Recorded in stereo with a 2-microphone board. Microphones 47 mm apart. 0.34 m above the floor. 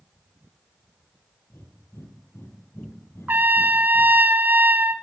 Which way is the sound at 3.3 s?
45° right (ahead or behind).